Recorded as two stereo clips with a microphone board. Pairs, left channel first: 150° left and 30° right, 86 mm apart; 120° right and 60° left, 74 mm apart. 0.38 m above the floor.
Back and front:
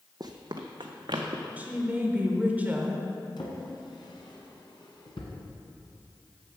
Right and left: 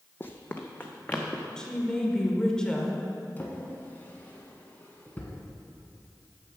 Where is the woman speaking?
60° right, 1.0 m.